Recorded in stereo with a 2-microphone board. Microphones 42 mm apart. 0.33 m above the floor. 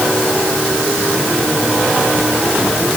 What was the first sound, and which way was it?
Only background noise.